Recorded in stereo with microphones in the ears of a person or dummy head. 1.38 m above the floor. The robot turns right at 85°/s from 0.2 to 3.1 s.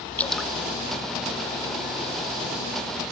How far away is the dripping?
About 0.7 m.